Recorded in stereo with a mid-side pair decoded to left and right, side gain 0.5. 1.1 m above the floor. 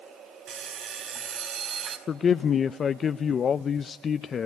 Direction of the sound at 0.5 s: 60° right.